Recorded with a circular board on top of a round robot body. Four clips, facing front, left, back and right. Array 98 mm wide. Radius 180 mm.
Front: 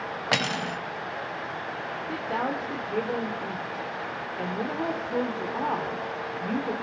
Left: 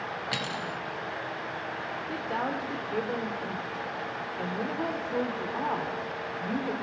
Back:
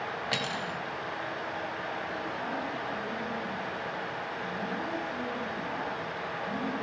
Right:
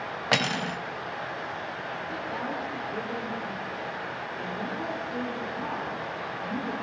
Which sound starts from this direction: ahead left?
A woman speaking, at 2.1 s.